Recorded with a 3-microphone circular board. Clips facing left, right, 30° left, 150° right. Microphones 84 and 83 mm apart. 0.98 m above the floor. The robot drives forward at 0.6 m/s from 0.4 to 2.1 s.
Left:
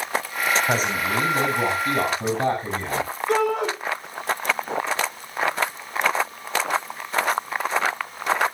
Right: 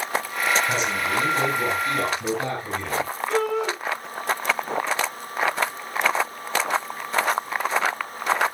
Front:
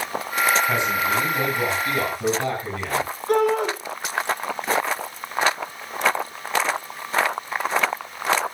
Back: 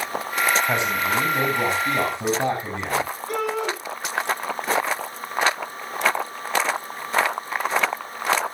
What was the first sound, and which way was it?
A man speaking, 140° left.